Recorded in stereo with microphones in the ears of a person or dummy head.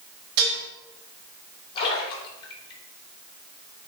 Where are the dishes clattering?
75° right (ahead or behind), 2.5 m.